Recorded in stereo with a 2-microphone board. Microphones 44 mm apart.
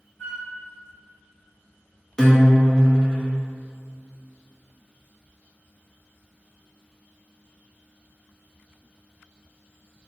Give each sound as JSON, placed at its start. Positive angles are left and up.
{"t": 0.2, "sound": "a flute", "side_deg": 65, "distance_m": 1.8}
{"t": 2.2, "sound": "a guitar", "side_deg": 15, "distance_m": 0.7}